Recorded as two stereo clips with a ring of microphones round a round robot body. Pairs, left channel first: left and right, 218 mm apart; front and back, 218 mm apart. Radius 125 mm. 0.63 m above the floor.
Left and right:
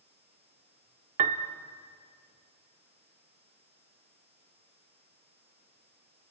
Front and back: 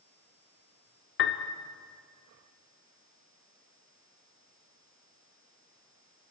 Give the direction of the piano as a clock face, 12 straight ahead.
1 o'clock.